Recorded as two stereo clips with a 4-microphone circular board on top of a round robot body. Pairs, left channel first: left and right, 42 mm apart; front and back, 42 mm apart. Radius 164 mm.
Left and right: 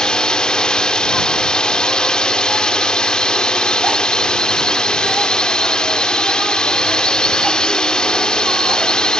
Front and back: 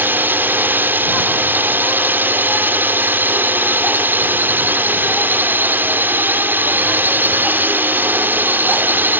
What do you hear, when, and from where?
0.0 s a drone: 155° left